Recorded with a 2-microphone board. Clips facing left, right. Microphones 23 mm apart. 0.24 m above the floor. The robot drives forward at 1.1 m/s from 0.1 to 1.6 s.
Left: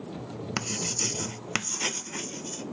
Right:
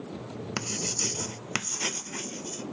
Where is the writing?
10° left (ahead or behind).